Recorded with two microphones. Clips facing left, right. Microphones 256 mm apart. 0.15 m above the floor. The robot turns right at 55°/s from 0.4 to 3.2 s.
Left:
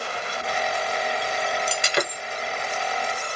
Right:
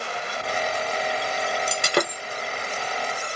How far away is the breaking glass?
About 0.9 m.